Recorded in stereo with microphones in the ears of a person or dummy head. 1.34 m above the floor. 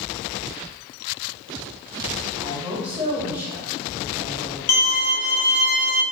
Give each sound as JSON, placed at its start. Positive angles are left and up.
{"t": 2.4, "sound": "a woman speaking", "side_deg": -20, "distance_m": 1.3}
{"t": 4.7, "sound": "a violin", "side_deg": 45, "distance_m": 0.6}